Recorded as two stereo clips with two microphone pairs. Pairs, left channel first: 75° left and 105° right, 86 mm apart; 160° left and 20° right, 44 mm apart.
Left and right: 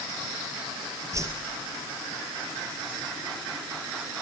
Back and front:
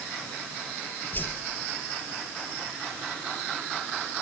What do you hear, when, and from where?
1.1 s a whoosh: 155° right, 3 m